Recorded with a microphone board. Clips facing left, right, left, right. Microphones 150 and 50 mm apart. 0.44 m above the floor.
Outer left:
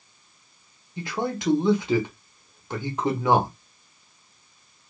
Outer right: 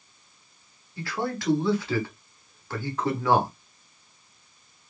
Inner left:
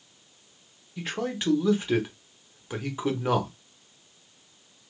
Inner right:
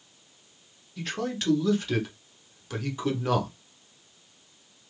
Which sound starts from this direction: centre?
A man speaking, at 1.0 s.